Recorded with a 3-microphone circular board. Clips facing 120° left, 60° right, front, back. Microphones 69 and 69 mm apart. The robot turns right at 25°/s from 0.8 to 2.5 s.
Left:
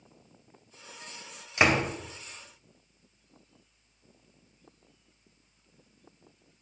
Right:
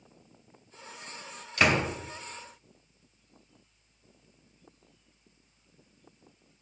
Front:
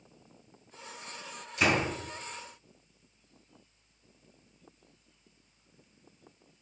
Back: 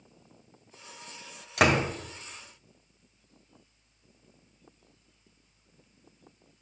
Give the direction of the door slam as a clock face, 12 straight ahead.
6 o'clock.